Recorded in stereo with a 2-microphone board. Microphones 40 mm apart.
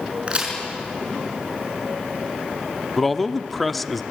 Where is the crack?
35° right (ahead or behind), 5.5 m.